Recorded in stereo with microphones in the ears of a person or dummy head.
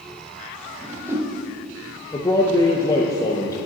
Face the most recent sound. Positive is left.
turn(degrees=20)  # may be behind; listen again after turning